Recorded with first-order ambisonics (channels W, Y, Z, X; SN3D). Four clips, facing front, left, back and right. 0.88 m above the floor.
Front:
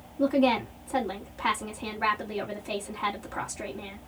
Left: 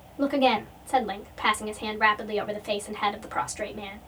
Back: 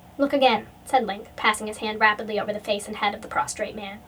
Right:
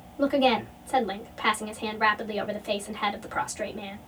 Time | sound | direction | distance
0.2 | a woman speaking | 175° left | 1.9 m